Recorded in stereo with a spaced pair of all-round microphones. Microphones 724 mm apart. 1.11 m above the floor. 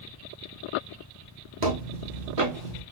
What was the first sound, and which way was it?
Footsteps, 30° right (ahead or behind).